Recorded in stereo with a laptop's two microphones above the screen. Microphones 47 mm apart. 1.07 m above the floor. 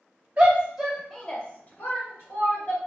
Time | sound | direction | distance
0.4 | a shout | 30° right (ahead or behind) | 0.8 m